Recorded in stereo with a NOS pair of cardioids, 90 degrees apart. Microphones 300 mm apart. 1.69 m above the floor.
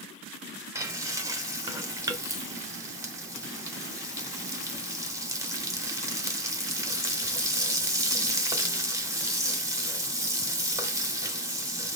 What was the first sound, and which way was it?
Frying, 10° right.